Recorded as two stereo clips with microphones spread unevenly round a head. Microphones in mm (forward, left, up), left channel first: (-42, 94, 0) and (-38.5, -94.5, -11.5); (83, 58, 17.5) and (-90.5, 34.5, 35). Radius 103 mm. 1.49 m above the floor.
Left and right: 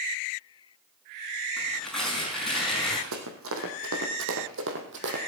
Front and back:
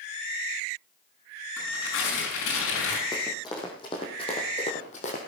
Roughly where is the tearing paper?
Ahead.